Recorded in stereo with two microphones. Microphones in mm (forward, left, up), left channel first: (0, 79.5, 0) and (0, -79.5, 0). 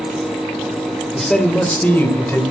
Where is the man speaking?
Centre (ahead or behind), 1.8 m; by 2.4 s 15° left (ahead or behind), 2.5 m.